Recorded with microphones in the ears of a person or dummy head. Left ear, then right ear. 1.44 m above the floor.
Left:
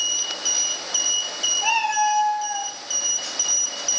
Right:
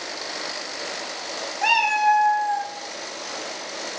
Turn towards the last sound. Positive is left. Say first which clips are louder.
# right 4 dB
turn(degrees=-45)  # may be behind; listen again after turning